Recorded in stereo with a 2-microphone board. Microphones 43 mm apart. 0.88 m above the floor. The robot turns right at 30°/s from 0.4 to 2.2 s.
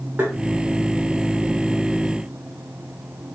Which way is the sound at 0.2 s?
45° right (ahead or behind).